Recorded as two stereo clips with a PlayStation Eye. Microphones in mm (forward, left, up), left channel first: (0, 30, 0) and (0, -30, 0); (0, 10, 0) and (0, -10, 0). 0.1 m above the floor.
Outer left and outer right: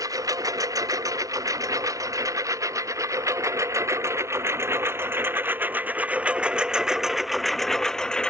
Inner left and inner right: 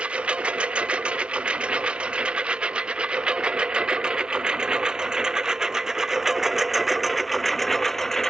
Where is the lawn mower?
75° right (ahead or behind); by 8.3 s 15° left (ahead or behind).